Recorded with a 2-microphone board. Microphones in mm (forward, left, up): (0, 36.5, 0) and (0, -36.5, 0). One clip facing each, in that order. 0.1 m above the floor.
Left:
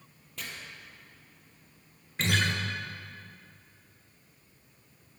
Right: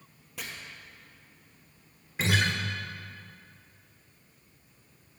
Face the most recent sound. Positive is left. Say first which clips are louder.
# right 1 dB
turn(degrees=-10)  # may be behind; listen again after turning